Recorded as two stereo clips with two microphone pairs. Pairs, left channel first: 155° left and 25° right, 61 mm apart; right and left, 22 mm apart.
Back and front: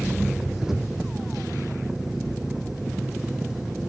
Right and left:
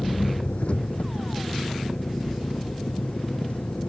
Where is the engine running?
110° right.